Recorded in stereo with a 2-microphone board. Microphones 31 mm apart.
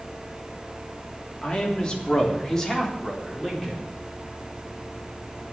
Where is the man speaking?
35° left (ahead or behind), 3.5 m; by 3.8 s centre (ahead or behind), 4.5 m.